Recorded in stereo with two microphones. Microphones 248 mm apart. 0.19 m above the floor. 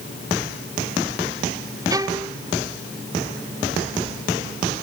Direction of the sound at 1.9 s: 15° right (ahead or behind).